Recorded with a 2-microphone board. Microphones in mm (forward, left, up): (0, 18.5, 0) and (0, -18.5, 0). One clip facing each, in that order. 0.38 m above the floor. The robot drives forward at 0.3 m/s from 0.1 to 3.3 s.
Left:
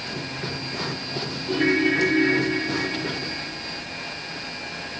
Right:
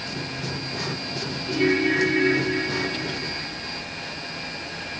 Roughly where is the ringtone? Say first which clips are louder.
Left 1 dB; centre.